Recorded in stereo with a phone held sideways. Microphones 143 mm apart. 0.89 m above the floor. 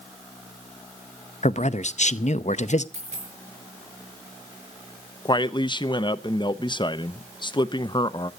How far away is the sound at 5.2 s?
About 0.5 m.